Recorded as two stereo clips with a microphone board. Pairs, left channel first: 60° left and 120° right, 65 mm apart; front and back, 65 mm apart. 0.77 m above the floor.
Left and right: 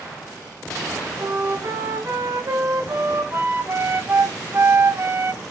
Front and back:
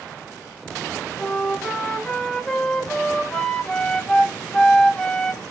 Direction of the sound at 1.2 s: 75° right.